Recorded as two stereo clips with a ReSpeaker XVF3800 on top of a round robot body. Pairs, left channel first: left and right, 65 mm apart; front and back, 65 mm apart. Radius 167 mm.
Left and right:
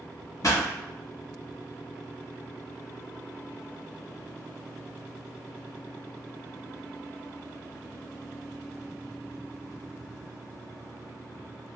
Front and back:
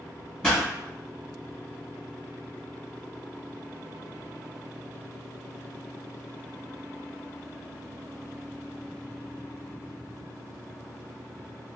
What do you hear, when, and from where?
0.4 s a pop: 75° left, 2.0 m